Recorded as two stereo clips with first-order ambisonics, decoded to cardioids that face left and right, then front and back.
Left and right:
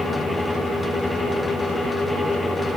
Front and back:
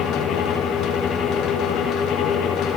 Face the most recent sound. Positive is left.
No sound to turn to.